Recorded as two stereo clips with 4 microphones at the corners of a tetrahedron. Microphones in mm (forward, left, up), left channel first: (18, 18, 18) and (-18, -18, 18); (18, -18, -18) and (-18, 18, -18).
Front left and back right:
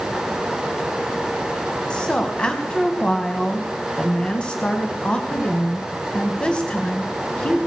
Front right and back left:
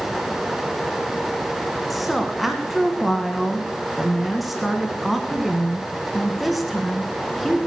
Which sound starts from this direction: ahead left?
A woman speaking, at 1.9 s.